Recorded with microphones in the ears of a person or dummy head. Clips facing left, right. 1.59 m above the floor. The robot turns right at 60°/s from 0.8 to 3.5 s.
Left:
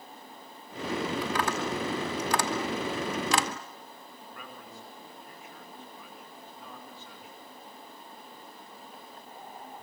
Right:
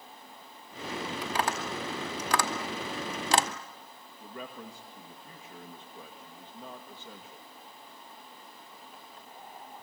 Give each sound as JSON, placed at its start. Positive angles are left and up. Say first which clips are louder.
{"t": 1.2, "sound": "tapping", "louder": "left 2 dB", "side_deg": -15, "distance_m": 1.0}
{"t": 4.2, "sound": "a man speaking", "louder": "right 7 dB", "side_deg": -30, "distance_m": 2.0}